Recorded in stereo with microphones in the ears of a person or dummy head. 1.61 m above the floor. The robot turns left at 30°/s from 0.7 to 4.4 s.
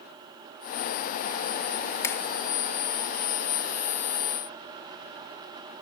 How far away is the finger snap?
About 0.6 m.